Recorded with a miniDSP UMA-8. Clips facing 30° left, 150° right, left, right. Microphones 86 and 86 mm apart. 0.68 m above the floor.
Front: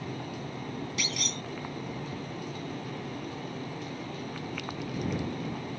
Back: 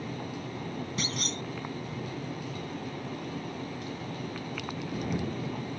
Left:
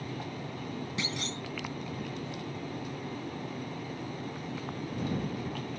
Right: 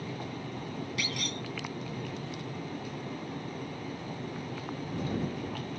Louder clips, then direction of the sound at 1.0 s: Back 1 dB, even; 155° left.